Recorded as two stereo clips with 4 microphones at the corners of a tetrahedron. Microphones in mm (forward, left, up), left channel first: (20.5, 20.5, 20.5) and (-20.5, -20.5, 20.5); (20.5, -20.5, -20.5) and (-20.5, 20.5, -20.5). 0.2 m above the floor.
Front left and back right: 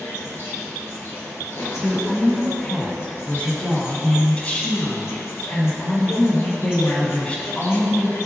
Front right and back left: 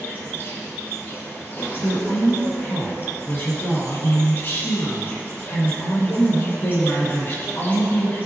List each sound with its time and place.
0.0 s an insect: 5° left, 2 m
1.8 s a woman speaking: 15° right, 2.5 m